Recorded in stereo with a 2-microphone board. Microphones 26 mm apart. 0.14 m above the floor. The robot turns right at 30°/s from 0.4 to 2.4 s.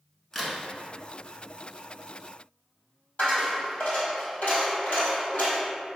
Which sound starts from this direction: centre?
A crack, at 0.3 s.